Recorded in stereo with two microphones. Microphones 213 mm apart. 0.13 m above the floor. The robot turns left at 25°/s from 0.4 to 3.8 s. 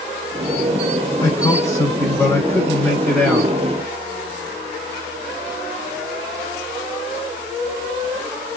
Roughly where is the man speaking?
Centre.